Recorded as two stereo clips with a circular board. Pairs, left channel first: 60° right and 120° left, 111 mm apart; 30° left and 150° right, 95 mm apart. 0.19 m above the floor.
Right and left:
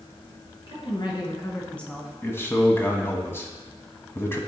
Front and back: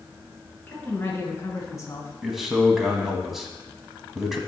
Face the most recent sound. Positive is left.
turn(degrees=-65)